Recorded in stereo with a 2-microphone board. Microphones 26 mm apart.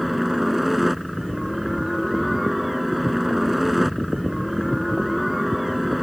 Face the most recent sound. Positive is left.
turn(degrees=-5)  # may be behind; listen again after turning